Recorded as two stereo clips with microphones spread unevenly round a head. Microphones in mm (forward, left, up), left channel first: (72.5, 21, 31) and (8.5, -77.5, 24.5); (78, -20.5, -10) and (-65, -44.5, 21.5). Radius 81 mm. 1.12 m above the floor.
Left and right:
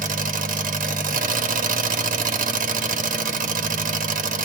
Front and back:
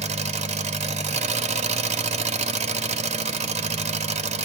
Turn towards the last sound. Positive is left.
turn(degrees=-130)